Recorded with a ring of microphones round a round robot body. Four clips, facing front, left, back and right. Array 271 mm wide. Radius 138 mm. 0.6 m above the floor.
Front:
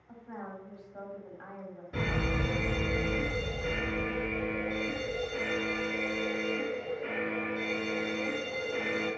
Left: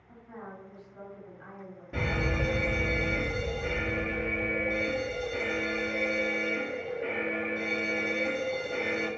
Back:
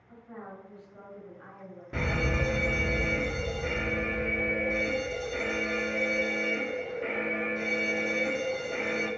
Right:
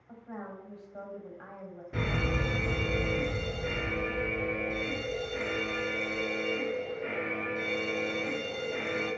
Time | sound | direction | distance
0.1 | a woman speaking | 60° right | 3 m
1.9 | a fire alarm | 175° left | 2.5 m